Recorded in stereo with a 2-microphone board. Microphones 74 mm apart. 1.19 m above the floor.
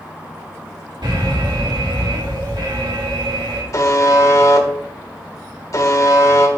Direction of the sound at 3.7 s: 50° left (ahead or behind).